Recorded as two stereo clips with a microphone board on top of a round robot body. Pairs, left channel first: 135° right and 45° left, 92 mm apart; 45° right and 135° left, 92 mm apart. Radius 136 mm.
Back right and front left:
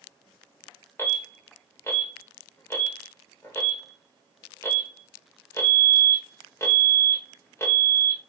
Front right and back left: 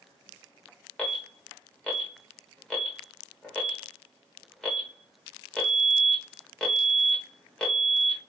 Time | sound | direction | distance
1.0 | an alarm | 115° right | 1.9 m